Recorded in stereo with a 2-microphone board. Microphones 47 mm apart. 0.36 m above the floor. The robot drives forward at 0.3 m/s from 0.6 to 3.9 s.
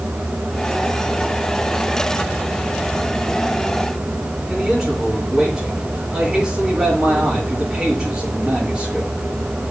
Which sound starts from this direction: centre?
A man speaking, at 4.5 s.